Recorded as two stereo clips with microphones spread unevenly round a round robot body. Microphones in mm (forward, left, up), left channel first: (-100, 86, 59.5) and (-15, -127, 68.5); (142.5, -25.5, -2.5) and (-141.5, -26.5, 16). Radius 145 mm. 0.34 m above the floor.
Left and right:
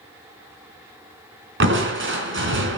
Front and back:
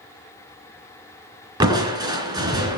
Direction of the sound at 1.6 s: 105° right.